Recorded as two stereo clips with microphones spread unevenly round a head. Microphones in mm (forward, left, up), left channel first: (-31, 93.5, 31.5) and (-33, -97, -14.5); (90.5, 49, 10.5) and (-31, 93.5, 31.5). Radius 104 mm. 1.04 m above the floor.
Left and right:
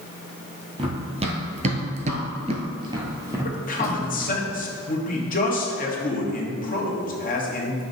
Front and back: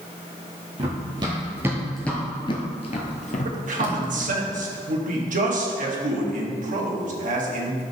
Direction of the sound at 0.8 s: 160° right.